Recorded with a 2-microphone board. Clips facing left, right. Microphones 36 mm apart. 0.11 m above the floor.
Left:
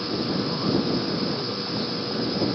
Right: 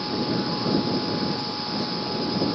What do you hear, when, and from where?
0.1 s a man speaking: 15° right (ahead or behind); by 1.9 s 40° left (ahead or behind)